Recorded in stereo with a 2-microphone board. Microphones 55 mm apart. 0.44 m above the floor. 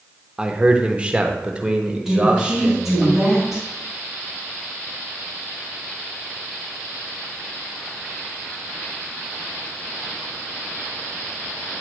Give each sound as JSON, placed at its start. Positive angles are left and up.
{"t": 0.4, "sound": "a man speaking", "side_deg": -15, "distance_m": 0.8}
{"t": 2.0, "sound": "a woman speaking", "side_deg": -5, "distance_m": 3.5}